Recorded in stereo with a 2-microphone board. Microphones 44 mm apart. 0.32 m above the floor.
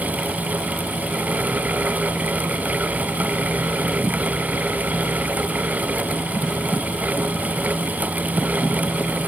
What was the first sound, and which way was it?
Only background noise.